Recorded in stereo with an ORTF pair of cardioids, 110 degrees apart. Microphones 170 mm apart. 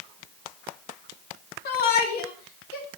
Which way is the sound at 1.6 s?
65° left.